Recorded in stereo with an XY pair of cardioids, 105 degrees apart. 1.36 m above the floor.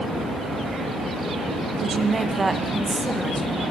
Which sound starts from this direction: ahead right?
A woman speaking, at 1.8 s.